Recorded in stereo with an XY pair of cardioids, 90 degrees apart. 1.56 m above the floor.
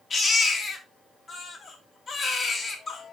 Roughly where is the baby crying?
Ahead left.